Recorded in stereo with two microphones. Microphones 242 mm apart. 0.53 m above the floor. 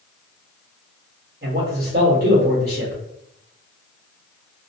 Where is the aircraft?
I don't hear an aircraft.